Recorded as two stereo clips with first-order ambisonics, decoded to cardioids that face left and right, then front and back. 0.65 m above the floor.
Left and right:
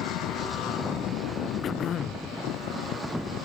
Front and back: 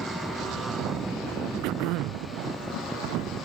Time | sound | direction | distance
1.6 | throat clearing | 150° left | ?